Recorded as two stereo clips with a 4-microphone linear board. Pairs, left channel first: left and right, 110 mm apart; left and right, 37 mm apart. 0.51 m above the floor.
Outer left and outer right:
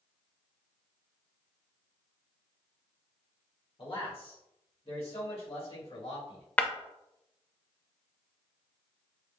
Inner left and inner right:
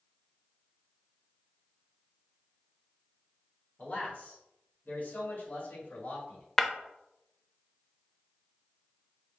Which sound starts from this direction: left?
A man speaking, at 3.8 s.